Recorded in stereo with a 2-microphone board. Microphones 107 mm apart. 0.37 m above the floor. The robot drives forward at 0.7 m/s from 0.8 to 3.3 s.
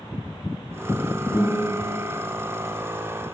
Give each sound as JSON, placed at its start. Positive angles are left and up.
{"t": 1.3, "sound": "a guitar", "side_deg": 10, "distance_m": 1.4}